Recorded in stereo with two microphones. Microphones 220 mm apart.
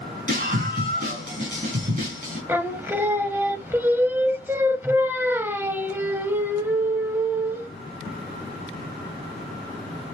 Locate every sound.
0.3 s a scream: 40° right (ahead or behind), 4 m
2.5 s singing: 10° right (ahead or behind), 0.5 m